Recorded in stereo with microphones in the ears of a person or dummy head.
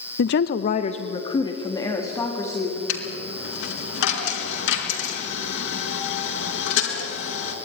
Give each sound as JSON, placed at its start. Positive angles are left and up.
{"t": 0.2, "sound": "a woman speaking", "side_deg": 65, "distance_m": 0.8}
{"t": 2.9, "sound": "a dropped coin", "side_deg": 75, "distance_m": 4.0}